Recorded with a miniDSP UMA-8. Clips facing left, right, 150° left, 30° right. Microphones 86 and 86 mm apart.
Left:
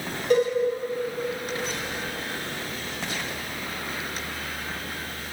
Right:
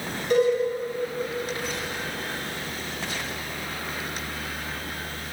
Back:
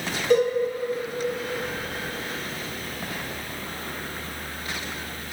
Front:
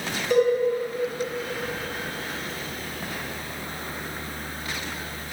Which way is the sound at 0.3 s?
125° left.